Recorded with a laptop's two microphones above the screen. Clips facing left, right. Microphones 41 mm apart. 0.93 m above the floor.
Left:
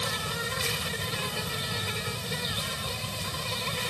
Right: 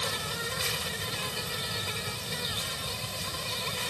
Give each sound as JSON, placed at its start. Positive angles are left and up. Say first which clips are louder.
{"t": 0.0, "sound": "an insect", "louder": "left 2 dB", "side_deg": 10}